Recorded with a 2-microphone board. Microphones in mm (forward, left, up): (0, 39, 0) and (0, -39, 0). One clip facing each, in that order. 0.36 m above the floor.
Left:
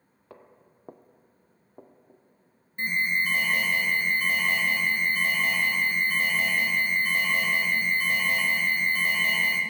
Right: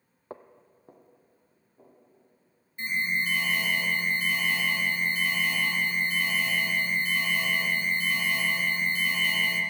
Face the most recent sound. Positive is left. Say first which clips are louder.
# left 2 dB
turn(degrees=45)  # may be behind; listen again after turning